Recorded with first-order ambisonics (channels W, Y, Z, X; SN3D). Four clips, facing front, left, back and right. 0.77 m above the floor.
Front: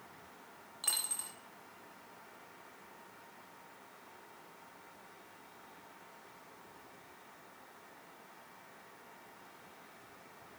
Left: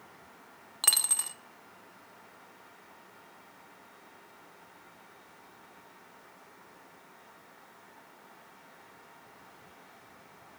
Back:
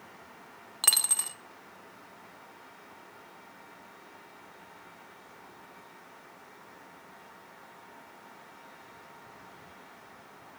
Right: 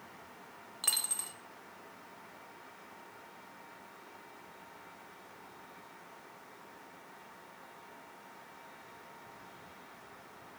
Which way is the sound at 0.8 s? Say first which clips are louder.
Left 6 dB, back 10 dB; 145° left.